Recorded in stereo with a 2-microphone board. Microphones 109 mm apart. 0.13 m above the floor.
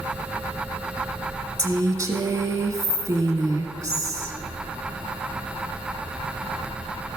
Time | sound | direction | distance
1.6 | a woman speaking | 35° right (ahead or behind) | 1.7 m